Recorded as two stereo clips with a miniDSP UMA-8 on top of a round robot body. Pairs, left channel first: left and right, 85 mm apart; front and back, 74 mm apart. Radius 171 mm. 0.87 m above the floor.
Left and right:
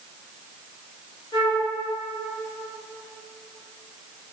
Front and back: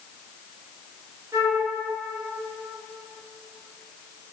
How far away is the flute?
About 3 m.